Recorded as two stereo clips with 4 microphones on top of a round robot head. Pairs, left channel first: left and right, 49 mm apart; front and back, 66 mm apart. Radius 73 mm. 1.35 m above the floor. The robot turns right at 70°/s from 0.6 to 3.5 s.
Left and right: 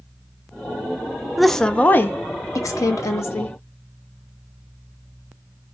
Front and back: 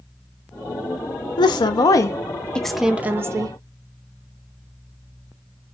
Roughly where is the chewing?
No chewing in this recording.